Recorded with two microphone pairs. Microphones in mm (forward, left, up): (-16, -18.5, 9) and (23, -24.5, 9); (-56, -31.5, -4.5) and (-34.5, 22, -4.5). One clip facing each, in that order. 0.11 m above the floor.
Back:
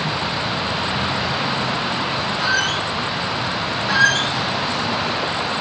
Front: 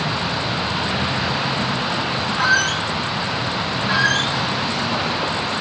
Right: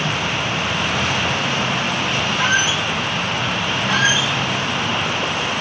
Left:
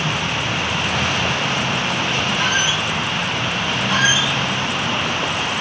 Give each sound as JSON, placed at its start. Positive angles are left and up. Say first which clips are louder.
{"t": 2.4, "sound": "a squeak", "louder": "front 3 dB, right 4 dB", "azimuth_deg": -40, "distance_m": 1.2}
{"t": 3.9, "sound": "a squeak", "louder": "back 3 dB, even", "azimuth_deg": -70, "distance_m": 3.0}